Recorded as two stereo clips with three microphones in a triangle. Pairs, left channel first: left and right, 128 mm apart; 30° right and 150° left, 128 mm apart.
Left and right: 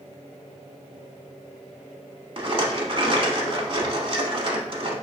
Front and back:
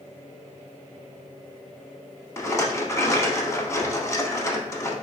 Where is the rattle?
85° right, 0.6 m.